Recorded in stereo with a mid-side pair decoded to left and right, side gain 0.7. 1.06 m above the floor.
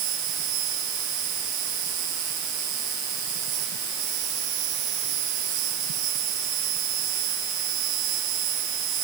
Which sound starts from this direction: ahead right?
An insect, at 0.0 s.